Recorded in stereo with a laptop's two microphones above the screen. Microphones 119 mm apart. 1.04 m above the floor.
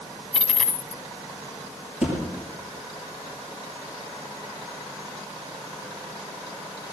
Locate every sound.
0.3 s a dropped coin: 5° right (ahead or behind), 1.3 m
2.0 s a thud: 15° right (ahead or behind), 6 m